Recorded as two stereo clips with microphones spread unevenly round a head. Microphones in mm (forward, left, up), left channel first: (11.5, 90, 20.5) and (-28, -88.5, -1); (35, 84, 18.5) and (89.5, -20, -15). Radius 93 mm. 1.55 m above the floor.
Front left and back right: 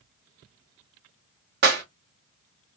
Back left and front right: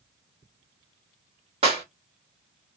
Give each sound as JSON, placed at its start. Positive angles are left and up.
{"t": 1.6, "sound": "a clap", "azimuth_deg": -120, "distance_m": 0.9}